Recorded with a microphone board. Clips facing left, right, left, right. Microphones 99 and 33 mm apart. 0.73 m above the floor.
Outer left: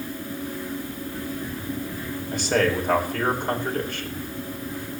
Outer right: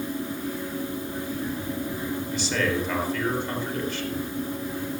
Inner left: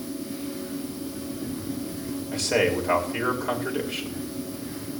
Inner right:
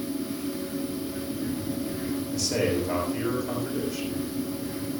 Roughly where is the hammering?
No hammering in this recording.